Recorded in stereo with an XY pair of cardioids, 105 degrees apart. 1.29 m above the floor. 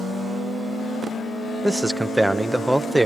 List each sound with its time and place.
1.6 s a man speaking: 5° right, 0.7 m